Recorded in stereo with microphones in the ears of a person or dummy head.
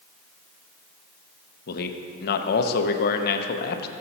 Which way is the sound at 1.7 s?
65° left (ahead or behind).